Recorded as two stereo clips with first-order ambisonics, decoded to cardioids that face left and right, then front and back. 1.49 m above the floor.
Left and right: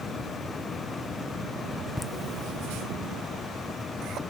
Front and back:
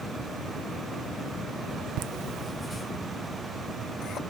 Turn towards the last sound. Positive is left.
turn(degrees=-50)